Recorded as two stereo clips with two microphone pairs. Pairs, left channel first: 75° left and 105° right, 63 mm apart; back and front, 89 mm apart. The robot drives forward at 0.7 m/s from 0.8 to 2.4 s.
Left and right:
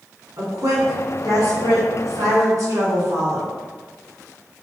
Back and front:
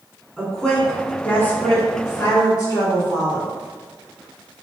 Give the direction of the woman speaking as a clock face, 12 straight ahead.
3 o'clock.